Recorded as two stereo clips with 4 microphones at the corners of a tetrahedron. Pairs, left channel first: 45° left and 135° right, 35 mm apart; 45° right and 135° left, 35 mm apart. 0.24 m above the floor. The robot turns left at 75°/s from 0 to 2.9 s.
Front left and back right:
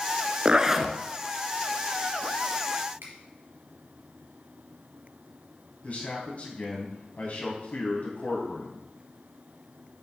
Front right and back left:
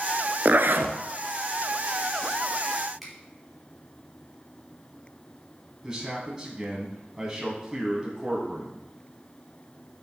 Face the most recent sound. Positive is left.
turn(degrees=60)